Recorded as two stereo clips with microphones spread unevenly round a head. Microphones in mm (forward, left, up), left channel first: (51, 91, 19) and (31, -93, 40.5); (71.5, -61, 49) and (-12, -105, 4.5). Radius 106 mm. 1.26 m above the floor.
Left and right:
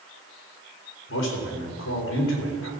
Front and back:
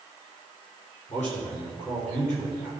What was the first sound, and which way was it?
A man speaking, 85° left.